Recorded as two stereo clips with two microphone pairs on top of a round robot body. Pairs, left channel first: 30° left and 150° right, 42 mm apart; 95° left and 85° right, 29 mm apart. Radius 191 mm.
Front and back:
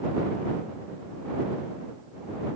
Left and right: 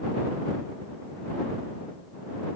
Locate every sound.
Only background noise.